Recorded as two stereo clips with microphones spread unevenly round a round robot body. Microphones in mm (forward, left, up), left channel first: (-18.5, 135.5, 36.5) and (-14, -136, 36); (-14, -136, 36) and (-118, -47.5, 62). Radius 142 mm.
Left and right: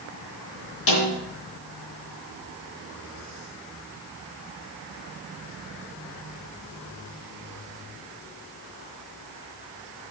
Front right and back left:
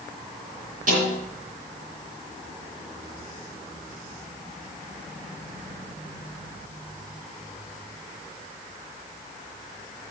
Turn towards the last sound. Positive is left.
turn(degrees=85)